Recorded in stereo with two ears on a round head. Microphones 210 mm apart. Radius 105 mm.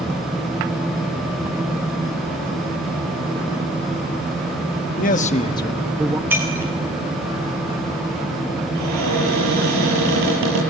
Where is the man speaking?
40° left (ahead or behind), 1.3 m; by 6.2 s 15° right (ahead or behind), 1.0 m.